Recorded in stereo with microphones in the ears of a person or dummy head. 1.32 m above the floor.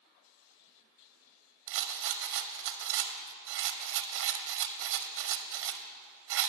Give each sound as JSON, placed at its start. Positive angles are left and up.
{"t": 1.7, "sound": "a rattle", "side_deg": -55, "distance_m": 0.7}